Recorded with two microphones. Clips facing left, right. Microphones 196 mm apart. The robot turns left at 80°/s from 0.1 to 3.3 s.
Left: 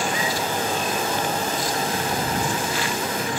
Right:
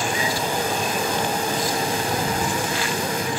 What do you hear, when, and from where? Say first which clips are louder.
0.4 s whispering: right 1 dB; 5° left (ahead or behind); by 0.5 s 15° left (ahead or behind)